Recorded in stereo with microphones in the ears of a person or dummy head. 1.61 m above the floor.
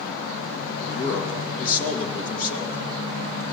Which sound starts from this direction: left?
A man speaking, at 0.8 s.